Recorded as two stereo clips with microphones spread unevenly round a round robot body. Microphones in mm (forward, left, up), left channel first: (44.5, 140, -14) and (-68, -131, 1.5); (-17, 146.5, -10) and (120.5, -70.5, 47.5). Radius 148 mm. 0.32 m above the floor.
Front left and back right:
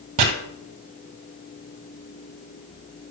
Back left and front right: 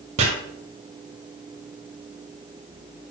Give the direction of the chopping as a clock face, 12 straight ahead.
4 o'clock.